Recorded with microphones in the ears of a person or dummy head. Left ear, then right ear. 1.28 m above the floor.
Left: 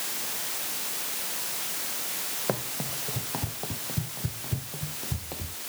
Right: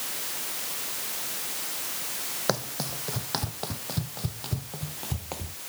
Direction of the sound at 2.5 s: 75° right (ahead or behind).